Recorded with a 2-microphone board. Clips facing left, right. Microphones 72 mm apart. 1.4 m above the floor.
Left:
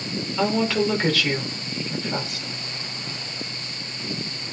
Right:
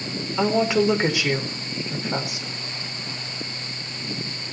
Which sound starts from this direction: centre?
A woman speaking, at 0.4 s.